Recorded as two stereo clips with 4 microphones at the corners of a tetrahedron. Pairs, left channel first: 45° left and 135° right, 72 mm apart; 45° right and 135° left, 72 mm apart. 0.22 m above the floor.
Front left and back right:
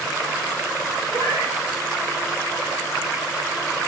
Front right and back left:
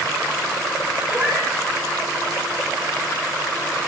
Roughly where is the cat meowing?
Behind.